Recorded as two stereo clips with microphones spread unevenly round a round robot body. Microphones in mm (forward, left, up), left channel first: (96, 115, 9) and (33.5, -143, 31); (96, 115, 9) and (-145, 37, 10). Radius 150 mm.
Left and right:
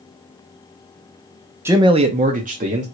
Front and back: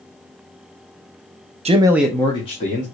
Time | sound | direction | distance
1.6 | a man speaking | 175° left | 0.6 m